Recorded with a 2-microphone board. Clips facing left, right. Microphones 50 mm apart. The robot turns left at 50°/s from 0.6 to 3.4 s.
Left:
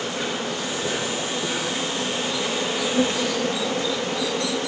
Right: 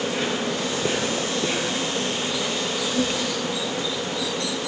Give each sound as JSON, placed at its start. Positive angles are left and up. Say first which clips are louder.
{"t": 0.0, "sound": "an insect", "louder": "right 2 dB", "azimuth_deg": -90, "distance_m": 4.5}